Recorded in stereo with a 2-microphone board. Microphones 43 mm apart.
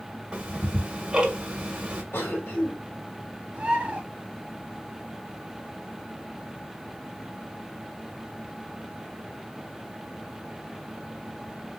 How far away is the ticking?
About 1.3 m.